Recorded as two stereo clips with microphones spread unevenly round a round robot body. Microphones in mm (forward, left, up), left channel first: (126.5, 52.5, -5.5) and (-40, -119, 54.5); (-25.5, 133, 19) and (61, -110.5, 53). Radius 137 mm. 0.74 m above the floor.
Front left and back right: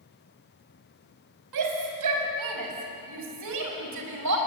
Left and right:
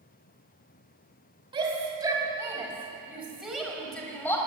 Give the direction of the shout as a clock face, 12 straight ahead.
5 o'clock.